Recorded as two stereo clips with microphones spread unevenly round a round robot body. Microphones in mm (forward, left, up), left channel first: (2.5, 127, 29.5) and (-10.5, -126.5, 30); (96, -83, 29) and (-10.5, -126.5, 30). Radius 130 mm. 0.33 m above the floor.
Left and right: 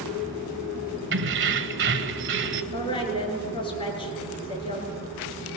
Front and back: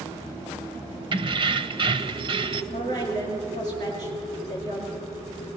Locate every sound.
1.1 s keys jangling: 125° right, 1.0 m
2.7 s a woman speaking: 155° left, 4.5 m